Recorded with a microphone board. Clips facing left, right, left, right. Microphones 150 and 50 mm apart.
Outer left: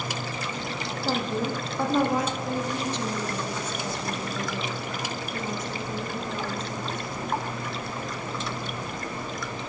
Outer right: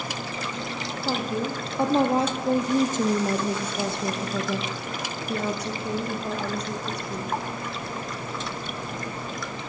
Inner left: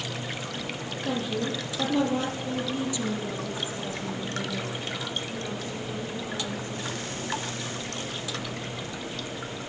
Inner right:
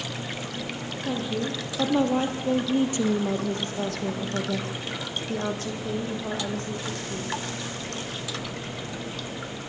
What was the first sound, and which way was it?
A woman speaking, 5° right (ahead or behind).